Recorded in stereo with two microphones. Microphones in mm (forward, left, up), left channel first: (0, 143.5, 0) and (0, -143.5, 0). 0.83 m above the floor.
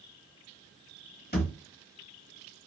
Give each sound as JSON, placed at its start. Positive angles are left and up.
{"t": 1.3, "sound": "a thud", "side_deg": 35, "distance_m": 1.1}